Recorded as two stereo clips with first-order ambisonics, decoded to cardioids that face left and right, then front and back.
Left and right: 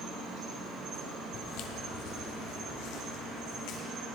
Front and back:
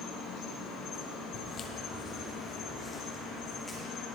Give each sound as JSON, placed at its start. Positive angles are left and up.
{"t": 0.0, "sound": "an insect", "azimuth_deg": -40, "distance_m": 4.0}
{"t": 1.3, "sound": "footsteps", "azimuth_deg": 50, "distance_m": 1.2}